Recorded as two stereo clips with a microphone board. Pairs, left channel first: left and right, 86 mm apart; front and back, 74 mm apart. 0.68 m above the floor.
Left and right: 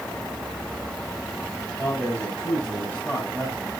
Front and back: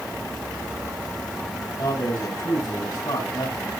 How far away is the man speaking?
About 6 m.